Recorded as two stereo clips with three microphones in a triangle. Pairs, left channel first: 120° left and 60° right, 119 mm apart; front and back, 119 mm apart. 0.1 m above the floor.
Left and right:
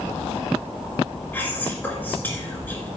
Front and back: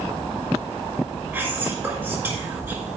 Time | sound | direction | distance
1.3 | whispering | 155° left | 1.8 m